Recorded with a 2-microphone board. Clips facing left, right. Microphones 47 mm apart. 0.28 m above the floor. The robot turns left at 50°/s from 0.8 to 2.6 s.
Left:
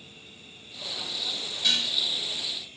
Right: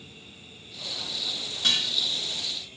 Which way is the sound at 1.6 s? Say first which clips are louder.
Right 1 dB; 50° right (ahead or behind).